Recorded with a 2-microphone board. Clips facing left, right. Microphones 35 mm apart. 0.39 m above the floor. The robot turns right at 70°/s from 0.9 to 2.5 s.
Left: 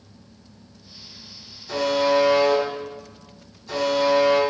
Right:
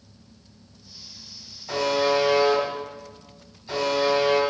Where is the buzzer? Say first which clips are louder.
Left 2 dB; 65° right, 1.7 m; by 4.4 s 10° right, 1.7 m.